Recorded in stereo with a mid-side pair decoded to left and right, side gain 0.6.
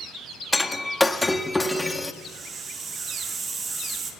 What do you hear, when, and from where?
0.5 s breaking glass: 5° left, 1.3 m
2.1 s a hiss: 40° right, 3 m